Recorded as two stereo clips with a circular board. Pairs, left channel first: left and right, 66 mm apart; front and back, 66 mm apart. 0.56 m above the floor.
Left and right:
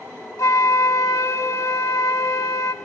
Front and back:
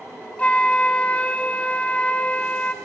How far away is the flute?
About 0.8 m.